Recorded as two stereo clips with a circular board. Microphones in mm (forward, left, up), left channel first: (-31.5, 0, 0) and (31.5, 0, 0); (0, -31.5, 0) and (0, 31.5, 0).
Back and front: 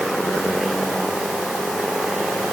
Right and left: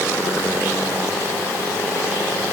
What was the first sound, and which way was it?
Only background noise.